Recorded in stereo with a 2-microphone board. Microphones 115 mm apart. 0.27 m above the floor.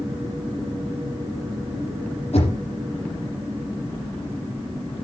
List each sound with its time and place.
2.3 s knocking: 70° left (ahead or behind), 7 m